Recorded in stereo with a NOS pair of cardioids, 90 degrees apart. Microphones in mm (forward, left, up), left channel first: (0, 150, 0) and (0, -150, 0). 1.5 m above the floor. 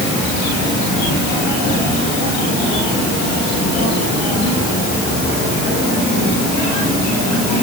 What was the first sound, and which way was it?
Only background noise.